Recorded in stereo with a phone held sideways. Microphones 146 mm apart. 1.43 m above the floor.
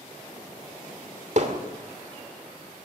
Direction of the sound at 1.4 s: 55° right (ahead or behind).